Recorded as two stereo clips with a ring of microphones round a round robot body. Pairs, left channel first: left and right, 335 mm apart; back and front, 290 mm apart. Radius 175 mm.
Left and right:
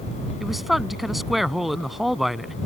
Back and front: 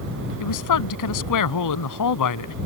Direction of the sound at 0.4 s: Straight behind.